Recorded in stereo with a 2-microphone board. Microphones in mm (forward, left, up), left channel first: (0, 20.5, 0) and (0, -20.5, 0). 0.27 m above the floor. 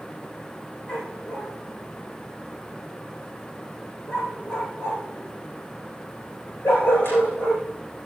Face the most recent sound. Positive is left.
turn(degrees=65)  # may be behind; listen again after turning